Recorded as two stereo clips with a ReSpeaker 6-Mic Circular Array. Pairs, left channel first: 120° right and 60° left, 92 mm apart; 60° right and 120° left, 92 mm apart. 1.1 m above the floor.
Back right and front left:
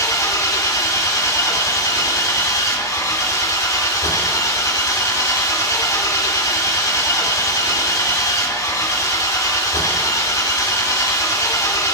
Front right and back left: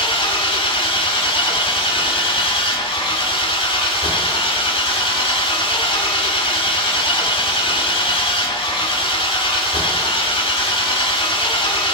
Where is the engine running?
70° right, 2.5 m.